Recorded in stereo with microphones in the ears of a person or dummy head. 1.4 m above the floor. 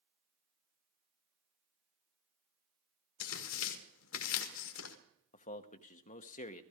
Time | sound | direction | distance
3.2 | tearing paper | 75° left (ahead or behind) | 1.6 m
5.3 | a man speaking | 35° left (ahead or behind) | 0.9 m